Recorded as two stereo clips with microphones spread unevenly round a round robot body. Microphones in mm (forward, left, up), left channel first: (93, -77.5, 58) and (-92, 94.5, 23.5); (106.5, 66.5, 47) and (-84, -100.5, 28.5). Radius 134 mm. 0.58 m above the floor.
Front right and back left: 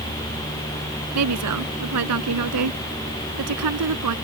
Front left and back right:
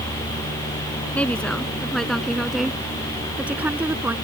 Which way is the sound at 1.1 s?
125° left.